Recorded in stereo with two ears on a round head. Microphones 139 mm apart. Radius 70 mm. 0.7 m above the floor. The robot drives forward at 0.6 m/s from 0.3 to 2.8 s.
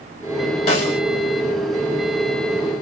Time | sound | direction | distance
0.7 | a snare drum | 45° left (ahead or behind) | 2 m